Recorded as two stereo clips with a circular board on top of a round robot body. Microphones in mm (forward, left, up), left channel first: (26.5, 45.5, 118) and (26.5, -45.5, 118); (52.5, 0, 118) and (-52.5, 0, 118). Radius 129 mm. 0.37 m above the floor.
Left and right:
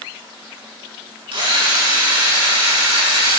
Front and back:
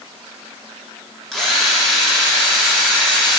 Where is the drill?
85° right, 2.5 m.